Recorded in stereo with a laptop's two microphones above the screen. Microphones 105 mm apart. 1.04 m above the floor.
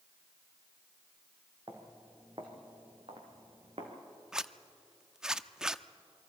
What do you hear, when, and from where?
1.7 s footsteps: 45° right (ahead or behind), 3 m; by 3.9 s 70° right (ahead or behind), 3.5 m
4.3 s a zipper: 5° right (ahead or behind), 0.6 m